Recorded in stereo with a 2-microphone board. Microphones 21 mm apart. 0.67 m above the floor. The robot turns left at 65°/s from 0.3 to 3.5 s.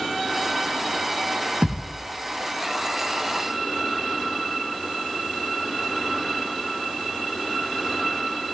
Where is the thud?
55° right (ahead or behind), 2.5 m; by 2.0 s 30° right (ahead or behind), 2.5 m.